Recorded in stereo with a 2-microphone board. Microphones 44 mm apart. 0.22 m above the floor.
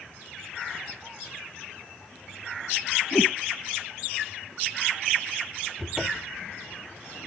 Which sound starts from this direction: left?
A whoosh, at 3.1 s.